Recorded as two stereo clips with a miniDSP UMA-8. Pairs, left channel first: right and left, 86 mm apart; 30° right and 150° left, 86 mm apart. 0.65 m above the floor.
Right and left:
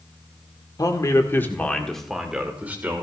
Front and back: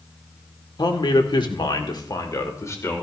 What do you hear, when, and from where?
0.8 s a man speaking: 50° right, 2 m; by 3.0 s 30° left, 2.5 m